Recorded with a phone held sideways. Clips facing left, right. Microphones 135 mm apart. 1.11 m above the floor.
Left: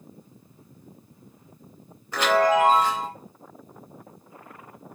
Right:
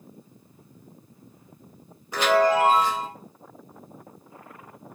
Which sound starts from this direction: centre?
A chime, at 2.1 s.